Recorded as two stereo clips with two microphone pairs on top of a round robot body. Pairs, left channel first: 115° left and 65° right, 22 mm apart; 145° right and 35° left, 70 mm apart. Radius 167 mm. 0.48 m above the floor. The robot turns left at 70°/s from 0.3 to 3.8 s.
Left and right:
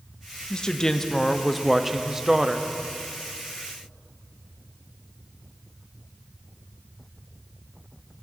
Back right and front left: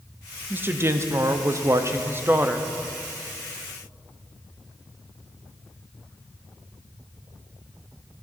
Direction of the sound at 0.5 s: 100° left.